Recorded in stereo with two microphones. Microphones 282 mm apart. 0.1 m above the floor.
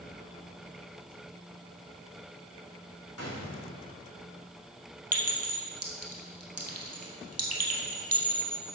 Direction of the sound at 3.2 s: 65° left (ahead or behind).